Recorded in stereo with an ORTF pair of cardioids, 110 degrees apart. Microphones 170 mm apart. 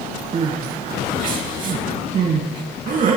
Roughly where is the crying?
Ahead right.